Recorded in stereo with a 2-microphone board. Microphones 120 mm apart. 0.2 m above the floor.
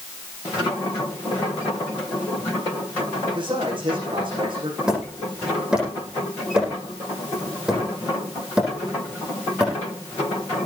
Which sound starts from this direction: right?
A man speaking, at 3.4 s.